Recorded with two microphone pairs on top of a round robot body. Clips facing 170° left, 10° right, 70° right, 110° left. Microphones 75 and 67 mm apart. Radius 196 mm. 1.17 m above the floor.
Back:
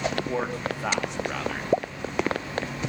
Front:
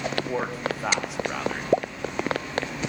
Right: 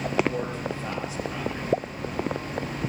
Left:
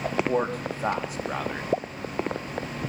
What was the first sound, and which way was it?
A man speaking, 75° left.